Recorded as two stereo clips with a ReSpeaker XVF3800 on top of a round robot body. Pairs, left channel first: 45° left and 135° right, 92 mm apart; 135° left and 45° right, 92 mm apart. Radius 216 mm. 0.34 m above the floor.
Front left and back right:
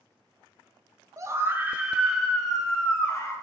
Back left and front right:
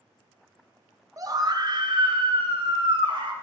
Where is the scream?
90° right, 1.4 m; by 3.3 s 25° right, 2 m.